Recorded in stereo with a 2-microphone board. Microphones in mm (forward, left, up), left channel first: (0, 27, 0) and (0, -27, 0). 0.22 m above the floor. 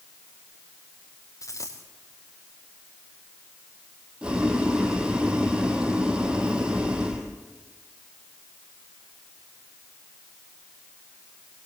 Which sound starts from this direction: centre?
Boiling, at 4.2 s.